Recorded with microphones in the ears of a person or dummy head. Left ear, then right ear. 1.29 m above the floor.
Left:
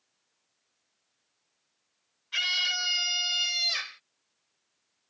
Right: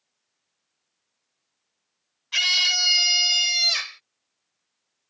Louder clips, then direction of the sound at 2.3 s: Right 7 dB; 30° right (ahead or behind).